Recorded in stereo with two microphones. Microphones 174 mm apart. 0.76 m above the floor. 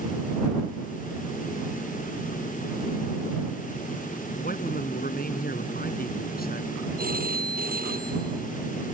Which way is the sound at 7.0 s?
60° right (ahead or behind).